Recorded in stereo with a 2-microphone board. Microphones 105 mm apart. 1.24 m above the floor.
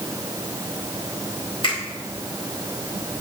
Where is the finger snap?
60° left (ahead or behind), 5 m.